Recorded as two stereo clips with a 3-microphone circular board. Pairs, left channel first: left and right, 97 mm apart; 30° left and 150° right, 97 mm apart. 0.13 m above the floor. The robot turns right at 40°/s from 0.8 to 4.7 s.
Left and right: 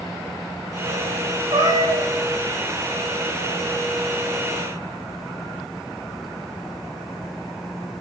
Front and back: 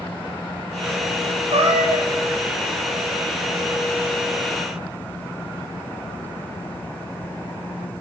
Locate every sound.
1.5 s a cat meowing: 120° right, 6.5 m; by 2.1 s 95° right, 6.5 m